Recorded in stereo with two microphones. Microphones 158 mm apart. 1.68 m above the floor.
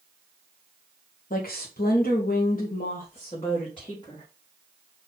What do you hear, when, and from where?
1.3 s a woman speaking: 65° left (ahead or behind), 1.0 m; by 4.2 s 30° left (ahead or behind), 1.7 m